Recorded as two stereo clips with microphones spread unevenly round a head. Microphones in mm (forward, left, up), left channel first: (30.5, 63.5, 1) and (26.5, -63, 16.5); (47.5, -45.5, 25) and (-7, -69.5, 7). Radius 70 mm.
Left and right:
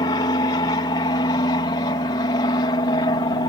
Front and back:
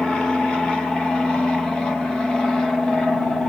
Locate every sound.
0.0 s an aircraft: 115° left